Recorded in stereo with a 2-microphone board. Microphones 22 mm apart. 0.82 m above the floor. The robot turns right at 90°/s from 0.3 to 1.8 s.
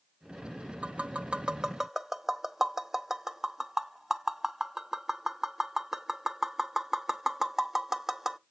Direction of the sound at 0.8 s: 60° right (ahead or behind).